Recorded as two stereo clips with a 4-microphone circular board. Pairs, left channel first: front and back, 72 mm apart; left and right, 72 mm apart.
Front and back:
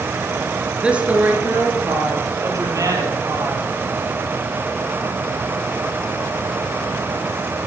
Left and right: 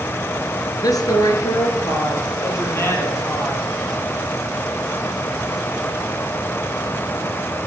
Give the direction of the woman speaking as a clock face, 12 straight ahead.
8 o'clock.